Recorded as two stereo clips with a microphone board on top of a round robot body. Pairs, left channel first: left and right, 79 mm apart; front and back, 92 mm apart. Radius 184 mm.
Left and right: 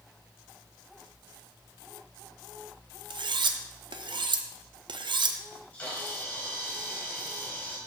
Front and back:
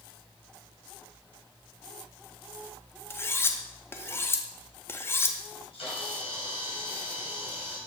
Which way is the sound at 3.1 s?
65° right.